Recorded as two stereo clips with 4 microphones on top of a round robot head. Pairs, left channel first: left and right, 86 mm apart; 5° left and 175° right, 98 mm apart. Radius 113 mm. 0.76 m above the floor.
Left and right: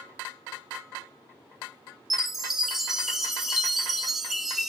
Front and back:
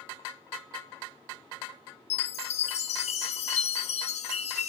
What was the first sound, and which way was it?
A chime, straight ahead.